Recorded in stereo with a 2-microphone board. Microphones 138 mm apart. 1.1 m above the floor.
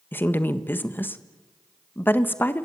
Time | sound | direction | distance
0.1 | a woman speaking | 15° left (ahead or behind) | 1.3 m